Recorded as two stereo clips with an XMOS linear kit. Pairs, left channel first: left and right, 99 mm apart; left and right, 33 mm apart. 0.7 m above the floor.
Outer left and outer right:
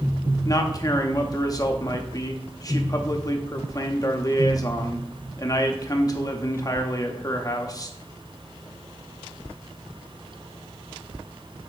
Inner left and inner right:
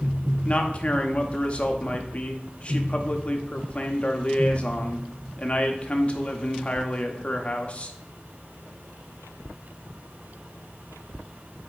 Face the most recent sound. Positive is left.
turn(degrees=35)  # may be behind; listen again after turning